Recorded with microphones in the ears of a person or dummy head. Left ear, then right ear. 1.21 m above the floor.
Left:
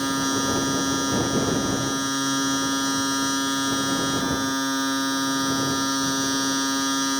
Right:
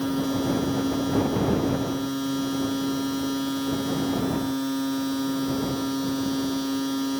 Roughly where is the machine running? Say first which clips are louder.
Left 3 dB; left.